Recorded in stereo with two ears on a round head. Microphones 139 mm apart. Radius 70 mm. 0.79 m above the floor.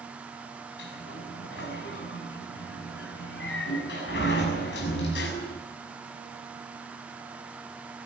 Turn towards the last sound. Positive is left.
turn(degrees=80)